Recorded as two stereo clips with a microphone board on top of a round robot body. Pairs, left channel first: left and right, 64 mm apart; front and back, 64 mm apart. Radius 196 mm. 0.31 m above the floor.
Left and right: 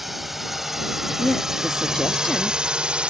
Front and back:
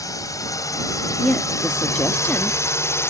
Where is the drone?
Straight ahead; by 3.1 s 20° right.